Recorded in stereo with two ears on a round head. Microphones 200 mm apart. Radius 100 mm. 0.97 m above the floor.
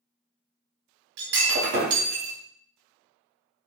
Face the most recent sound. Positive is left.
turn(degrees=-60)  # may be behind; listen again after turning